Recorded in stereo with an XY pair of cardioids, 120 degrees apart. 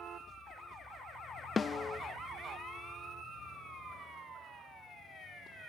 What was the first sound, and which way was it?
A snare drum, 30° left.